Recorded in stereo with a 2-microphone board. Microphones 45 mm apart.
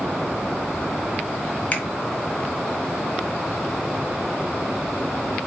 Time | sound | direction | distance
1.7 | a finger snap | 30° left (ahead or behind) | 1.3 m